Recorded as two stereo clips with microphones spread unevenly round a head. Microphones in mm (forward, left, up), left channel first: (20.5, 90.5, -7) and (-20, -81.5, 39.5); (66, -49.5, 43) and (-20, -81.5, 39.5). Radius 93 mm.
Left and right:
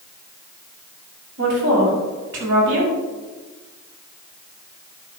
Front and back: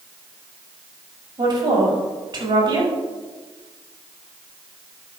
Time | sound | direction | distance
1.4 | a woman speaking | 130° right | 5.5 m